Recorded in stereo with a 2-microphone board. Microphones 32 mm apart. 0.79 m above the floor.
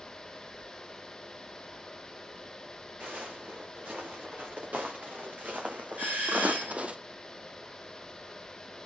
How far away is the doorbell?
About 7 m.